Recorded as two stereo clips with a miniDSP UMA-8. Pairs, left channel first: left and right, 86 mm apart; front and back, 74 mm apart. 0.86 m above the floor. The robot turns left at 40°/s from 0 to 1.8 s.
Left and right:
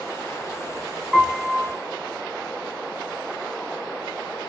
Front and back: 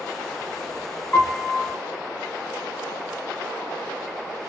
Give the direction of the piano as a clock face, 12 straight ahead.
12 o'clock.